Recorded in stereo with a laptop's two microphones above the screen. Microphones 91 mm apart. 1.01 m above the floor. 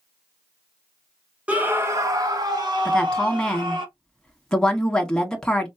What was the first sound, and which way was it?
A scream, 15° right (ahead or behind).